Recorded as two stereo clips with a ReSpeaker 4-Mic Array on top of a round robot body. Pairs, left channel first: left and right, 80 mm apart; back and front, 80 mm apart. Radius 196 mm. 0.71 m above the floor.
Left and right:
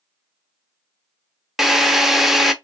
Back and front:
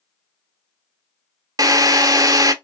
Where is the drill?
5° right, 0.9 m.